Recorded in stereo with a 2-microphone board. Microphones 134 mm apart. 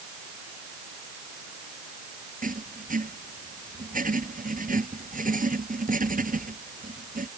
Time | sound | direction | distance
2.4 | writing | 80° right | ?